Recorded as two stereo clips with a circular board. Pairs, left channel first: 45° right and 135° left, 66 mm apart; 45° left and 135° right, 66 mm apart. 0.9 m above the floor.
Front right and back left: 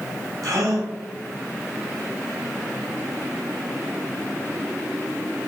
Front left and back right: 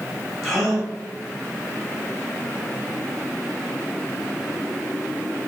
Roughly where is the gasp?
Behind left.